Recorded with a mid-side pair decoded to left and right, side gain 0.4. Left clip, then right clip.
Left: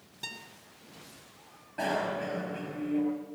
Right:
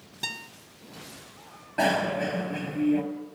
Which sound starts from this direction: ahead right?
A guitar, at 0.2 s.